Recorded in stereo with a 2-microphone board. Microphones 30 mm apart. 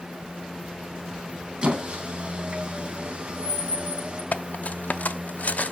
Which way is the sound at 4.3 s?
55° left (ahead or behind).